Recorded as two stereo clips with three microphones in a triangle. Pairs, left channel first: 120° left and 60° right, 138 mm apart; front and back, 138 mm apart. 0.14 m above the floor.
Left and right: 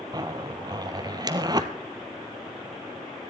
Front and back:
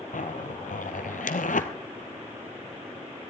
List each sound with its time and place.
0.1 s a zipper: straight ahead, 0.8 m